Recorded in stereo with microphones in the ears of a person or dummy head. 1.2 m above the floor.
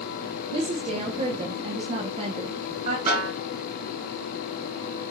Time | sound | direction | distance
0.5 | a woman speaking | 40° right (ahead or behind) | 0.6 m
3.1 | a snare drum | 35° right (ahead or behind) | 2 m